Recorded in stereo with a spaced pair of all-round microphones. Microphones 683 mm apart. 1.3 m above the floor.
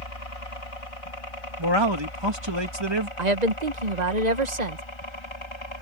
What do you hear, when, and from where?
0.0 s a helicopter: 55° left (ahead or behind); by 5.8 s 40° left (ahead or behind)
1.6 s a man speaking: 40° right (ahead or behind)
3.2 s a woman speaking: 80° right